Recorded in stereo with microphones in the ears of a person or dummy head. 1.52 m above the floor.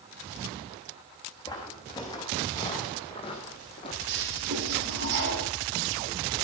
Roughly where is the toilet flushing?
Right.